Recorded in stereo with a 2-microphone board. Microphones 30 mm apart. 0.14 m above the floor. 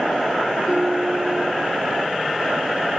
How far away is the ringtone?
About 3 m.